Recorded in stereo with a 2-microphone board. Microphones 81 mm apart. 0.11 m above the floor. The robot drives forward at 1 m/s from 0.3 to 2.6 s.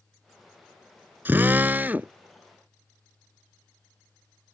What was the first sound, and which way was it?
A drill, 25° right (ahead or behind).